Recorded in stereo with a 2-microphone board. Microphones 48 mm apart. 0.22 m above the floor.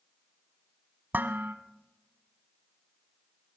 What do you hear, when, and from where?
1.1 s dishes clattering: 45° right (ahead or behind), 1.1 m